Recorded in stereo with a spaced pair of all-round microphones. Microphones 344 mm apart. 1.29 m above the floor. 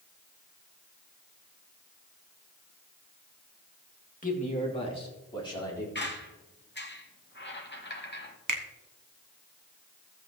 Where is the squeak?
30° left (ahead or behind), 1.1 m.